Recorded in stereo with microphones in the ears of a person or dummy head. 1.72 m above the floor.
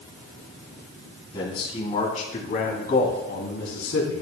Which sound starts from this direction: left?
A man speaking, at 1.3 s.